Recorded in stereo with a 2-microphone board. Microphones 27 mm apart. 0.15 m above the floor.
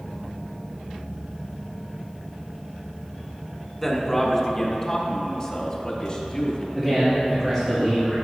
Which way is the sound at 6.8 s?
5° left (ahead or behind).